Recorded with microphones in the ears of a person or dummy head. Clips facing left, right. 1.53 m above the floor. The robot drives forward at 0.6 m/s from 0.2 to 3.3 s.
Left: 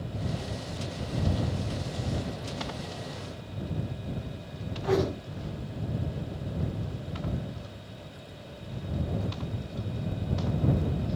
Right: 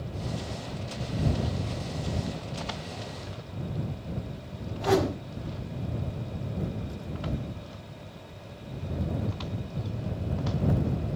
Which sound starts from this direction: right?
A whoosh, at 4.8 s.